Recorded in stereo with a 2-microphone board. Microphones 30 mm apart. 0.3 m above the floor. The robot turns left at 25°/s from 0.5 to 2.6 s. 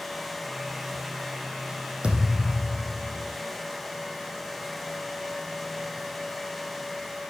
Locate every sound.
2.0 s a thud: 30° right (ahead or behind), 5 m; by 3.3 s 15° right (ahead or behind), 5 m